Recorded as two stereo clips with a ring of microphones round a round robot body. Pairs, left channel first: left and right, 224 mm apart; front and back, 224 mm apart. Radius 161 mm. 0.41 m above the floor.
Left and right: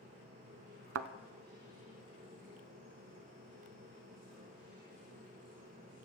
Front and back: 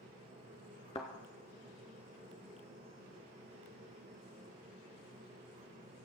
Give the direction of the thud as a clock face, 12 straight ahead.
2 o'clock.